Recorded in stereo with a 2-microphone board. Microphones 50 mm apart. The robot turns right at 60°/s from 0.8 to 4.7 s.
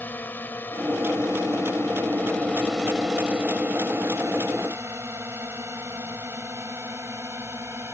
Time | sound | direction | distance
0.0 | a drone | 40° left (ahead or behind) | ?